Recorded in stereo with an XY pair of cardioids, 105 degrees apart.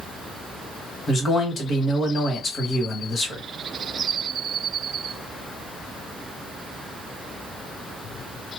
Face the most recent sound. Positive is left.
turn(degrees=45)